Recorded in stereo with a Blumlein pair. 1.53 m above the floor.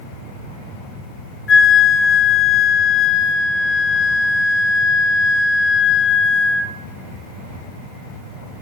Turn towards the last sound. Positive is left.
turn(degrees=20)